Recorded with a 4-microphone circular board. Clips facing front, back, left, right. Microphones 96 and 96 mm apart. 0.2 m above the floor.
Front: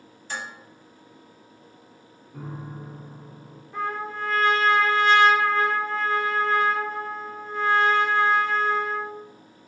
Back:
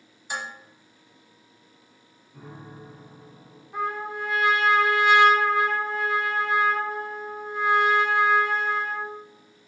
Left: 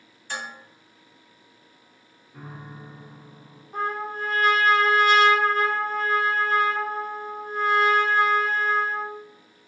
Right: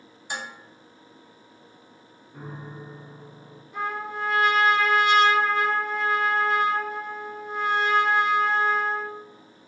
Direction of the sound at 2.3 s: 10° right.